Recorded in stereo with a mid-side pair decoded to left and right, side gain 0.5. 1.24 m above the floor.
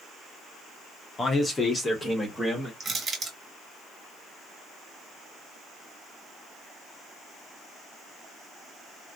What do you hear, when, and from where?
1.2 s a man speaking: 35° left, 0.8 m; by 2.7 s 20° left, 1.6 m
2.8 s crushing: 40° right, 1.5 m